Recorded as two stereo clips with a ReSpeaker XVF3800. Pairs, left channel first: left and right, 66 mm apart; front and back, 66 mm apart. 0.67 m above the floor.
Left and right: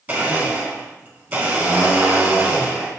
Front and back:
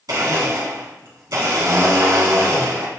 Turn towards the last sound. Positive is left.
turn(degrees=-155)